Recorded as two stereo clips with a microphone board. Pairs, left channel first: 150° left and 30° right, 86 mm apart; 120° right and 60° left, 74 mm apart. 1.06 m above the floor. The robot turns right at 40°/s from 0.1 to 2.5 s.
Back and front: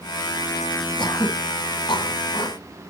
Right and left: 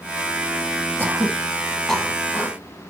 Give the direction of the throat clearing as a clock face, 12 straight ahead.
8 o'clock.